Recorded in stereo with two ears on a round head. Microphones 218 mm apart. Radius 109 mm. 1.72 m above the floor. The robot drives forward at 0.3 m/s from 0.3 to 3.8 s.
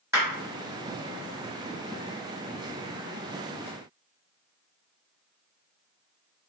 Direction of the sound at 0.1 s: 10° right (ahead or behind).